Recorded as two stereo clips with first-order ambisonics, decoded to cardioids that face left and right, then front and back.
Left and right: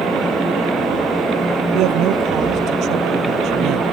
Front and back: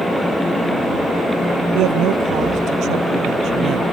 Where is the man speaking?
135° right.